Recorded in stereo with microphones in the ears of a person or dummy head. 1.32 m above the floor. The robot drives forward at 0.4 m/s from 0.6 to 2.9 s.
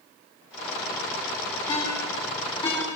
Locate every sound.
1.7 s a ringtone: 25° left (ahead or behind), 8 m